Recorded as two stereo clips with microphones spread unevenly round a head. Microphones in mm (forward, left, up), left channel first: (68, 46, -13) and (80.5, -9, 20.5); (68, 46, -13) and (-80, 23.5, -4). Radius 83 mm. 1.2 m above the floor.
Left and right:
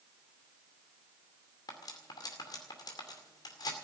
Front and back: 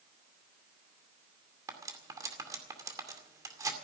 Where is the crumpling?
I don't hear crumpling.